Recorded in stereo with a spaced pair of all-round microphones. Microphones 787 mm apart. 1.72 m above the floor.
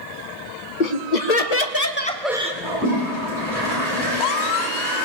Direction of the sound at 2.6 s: 85° left.